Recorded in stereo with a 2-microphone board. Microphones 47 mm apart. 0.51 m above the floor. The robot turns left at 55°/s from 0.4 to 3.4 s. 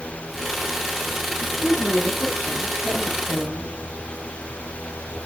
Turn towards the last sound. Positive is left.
turn(degrees=-45)